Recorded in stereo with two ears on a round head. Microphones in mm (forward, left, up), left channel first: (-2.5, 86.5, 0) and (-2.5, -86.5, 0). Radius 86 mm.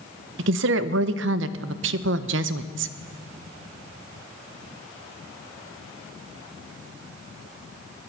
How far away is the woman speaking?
About 0.7 m.